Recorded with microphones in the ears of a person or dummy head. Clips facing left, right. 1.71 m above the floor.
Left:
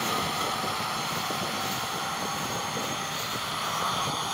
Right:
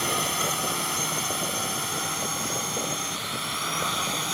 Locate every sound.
0.0 s a drone: 35° right (ahead or behind); by 4.3 s 30° right (ahead or behind)